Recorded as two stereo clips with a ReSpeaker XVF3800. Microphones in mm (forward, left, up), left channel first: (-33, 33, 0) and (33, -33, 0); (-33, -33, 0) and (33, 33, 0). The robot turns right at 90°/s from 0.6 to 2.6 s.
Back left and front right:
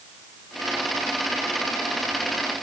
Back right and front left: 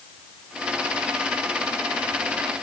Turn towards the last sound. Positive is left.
No sound to turn to.